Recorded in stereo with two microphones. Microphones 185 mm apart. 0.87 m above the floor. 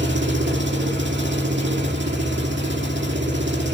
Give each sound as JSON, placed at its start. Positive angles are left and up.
{"t": 0.0, "sound": "an engine running", "side_deg": -75, "distance_m": 2.0}